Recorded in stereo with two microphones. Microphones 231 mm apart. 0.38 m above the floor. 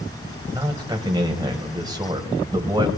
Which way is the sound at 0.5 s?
15° right (ahead or behind).